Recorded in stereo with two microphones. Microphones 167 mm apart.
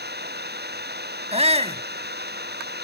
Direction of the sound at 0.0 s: 80° right.